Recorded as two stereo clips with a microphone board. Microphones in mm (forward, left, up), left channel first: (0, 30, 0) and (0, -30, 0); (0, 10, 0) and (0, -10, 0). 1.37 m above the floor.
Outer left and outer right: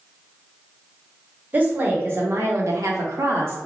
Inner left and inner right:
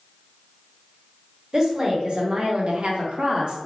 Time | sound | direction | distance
1.5 | a woman speaking | 30° right (ahead or behind) | 1.2 m